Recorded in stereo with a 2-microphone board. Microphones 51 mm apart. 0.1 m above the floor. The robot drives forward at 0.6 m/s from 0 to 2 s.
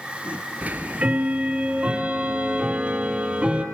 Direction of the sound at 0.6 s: 30° right (ahead or behind).